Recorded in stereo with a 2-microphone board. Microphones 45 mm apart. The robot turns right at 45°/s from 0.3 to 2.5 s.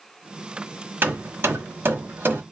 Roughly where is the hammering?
Right.